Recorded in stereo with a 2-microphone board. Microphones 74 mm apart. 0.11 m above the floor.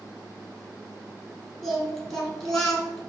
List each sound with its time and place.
1.6 s singing: centre (ahead or behind), 1.4 m